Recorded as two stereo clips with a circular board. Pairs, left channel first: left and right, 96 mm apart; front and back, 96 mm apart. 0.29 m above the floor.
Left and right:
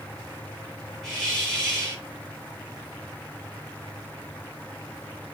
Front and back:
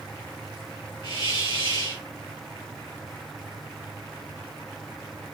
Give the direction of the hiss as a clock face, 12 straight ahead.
12 o'clock.